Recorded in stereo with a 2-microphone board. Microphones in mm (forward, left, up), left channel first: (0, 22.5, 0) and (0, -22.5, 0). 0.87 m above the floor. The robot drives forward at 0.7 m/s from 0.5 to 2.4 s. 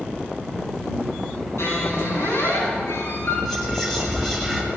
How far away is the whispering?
About 5.5 m.